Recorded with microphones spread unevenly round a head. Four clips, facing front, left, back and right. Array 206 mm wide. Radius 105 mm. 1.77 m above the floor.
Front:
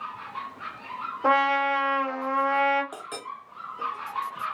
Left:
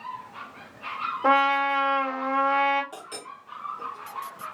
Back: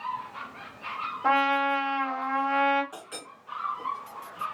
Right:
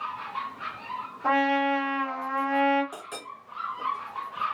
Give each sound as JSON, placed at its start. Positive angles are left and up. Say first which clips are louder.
{"t": 1.2, "sound": "a trumpet", "louder": "left 2 dB, front 2 dB", "azimuth_deg": 40, "distance_m": 2.5}
{"t": 2.9, "sound": "a clink", "louder": "right 1 dB, front 6 dB", "azimuth_deg": 0, "distance_m": 1.4}